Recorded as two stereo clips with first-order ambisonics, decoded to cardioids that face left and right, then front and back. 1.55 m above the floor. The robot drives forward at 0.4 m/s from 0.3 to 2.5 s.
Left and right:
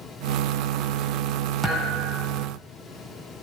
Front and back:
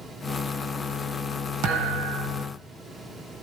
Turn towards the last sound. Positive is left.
turn(degrees=-170)